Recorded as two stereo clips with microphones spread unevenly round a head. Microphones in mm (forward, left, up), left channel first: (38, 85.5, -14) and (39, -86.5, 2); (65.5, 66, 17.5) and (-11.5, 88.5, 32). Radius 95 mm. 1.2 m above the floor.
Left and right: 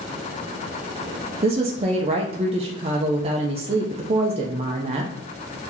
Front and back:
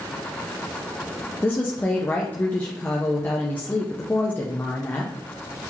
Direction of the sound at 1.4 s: 55° right.